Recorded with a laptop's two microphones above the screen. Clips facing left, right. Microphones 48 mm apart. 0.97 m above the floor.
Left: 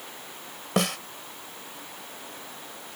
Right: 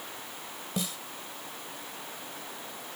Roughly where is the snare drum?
Left.